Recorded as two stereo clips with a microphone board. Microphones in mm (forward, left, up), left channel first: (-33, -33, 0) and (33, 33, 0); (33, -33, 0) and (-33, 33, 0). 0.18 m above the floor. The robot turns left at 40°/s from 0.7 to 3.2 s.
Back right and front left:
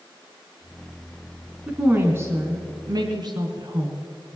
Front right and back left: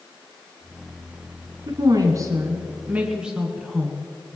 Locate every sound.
1.7 s a woman speaking: 115° left, 1.7 m; by 4.4 s 55° left, 1.7 m